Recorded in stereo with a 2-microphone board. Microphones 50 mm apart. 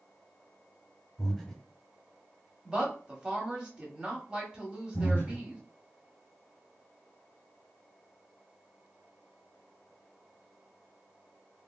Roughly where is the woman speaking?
Centre.